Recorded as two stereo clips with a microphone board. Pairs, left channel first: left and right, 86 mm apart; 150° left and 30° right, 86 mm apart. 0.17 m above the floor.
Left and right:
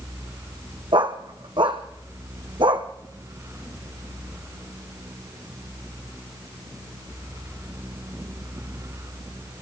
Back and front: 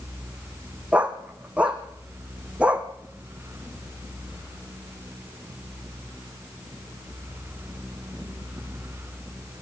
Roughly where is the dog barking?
Right.